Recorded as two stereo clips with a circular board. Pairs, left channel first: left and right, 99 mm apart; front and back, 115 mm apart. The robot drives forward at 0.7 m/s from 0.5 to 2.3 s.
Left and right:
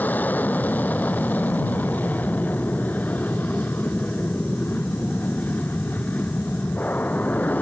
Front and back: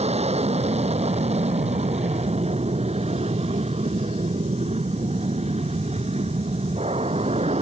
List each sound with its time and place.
0.0 s an aircraft: 165° left